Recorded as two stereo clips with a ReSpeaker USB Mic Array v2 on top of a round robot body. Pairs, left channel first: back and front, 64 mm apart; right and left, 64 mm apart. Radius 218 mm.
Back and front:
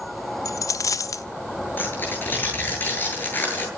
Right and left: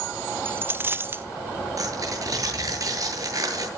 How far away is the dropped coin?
About 0.9 m.